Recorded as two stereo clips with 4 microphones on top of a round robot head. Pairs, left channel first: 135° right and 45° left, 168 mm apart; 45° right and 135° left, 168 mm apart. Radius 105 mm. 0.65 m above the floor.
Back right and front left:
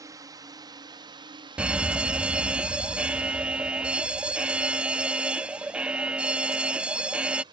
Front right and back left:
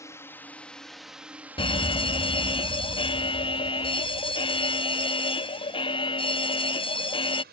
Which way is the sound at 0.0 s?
5° left.